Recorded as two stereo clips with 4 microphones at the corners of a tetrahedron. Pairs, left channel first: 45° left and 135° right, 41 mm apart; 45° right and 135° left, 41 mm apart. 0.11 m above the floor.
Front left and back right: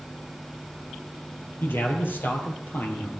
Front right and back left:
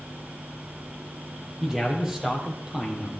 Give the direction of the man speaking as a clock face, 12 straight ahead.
10 o'clock.